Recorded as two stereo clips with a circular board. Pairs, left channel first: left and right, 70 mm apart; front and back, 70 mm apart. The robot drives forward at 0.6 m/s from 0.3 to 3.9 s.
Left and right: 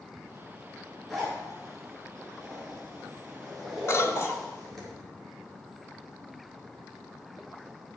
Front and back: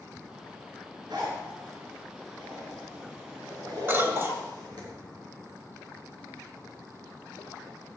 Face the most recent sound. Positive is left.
turn(degrees=125)